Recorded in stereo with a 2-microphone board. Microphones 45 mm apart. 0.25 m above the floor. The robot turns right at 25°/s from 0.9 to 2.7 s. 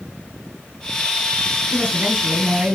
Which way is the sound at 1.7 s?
55° right (ahead or behind).